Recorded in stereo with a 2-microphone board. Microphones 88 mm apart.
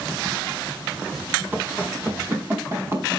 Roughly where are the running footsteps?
Right.